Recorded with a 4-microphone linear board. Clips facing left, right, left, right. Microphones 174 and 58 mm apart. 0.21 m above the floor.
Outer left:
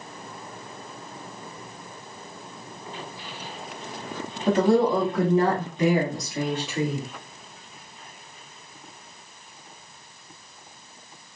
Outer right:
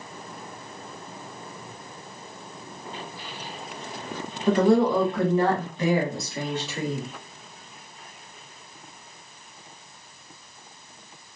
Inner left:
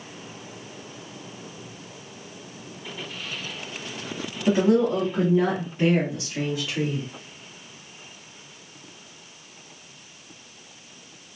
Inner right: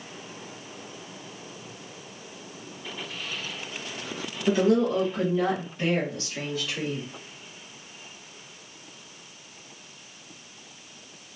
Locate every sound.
4.5 s a woman speaking: 25° left (ahead or behind), 1.1 m; by 7.0 s 15° left (ahead or behind), 2 m